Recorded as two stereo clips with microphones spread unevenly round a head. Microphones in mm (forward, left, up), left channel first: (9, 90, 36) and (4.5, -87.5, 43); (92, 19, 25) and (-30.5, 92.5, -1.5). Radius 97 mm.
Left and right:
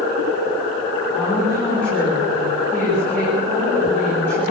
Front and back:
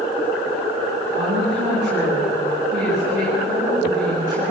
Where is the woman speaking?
170° left, 9.5 m.